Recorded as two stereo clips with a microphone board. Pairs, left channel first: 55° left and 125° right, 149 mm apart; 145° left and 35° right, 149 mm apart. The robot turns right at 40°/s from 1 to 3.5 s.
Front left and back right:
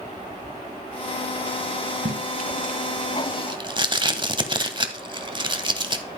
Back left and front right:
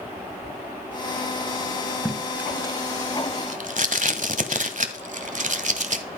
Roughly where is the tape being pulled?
Behind right.